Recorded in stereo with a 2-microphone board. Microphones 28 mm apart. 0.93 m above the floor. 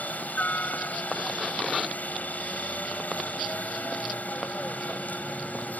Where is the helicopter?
75° left (ahead or behind).